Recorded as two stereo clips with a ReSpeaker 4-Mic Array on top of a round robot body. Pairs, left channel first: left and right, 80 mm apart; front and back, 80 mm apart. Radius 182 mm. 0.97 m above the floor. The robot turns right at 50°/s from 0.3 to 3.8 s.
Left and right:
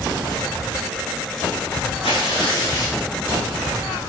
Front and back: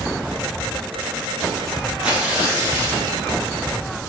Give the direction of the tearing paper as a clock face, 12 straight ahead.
9 o'clock.